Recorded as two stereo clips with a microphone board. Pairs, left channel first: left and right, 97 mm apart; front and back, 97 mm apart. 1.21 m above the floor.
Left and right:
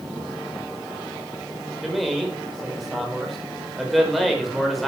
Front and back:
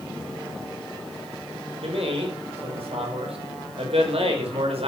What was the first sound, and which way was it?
A man speaking, straight behind.